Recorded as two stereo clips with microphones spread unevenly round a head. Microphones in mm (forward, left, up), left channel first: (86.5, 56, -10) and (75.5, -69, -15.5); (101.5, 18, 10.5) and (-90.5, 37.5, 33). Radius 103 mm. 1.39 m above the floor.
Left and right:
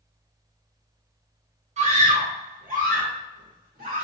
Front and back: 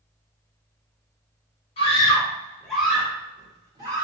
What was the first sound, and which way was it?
A scream, 65° right.